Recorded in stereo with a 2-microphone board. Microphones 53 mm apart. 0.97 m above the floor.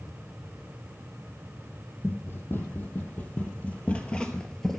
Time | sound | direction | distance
2.0 | running footsteps | 40° left (ahead or behind) | 1.9 m